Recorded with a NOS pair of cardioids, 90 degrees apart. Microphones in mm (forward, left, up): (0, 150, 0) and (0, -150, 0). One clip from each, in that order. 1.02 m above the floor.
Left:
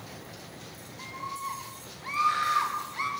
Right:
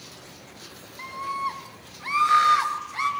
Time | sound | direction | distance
1.0 | a scream | 50° right | 6.5 m